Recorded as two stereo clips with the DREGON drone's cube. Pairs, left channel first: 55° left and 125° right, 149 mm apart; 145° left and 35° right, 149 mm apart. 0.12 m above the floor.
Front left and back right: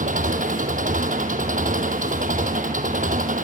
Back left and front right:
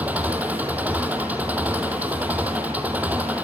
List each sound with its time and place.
0.0 s an engine running: 115° right, 1.8 m